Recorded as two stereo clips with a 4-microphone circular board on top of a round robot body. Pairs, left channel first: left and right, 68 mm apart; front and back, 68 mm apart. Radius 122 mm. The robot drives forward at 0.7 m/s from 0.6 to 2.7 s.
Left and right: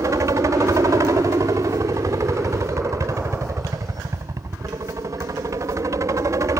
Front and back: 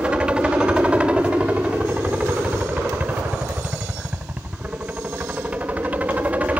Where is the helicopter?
110° right; by 6.6 s 115° right.